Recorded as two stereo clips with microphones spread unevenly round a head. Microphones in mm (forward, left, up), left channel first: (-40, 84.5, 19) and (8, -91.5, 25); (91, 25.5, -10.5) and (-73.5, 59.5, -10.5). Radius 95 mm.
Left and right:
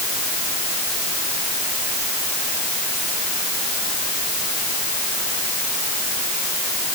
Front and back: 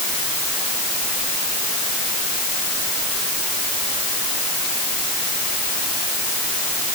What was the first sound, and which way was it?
Only background noise.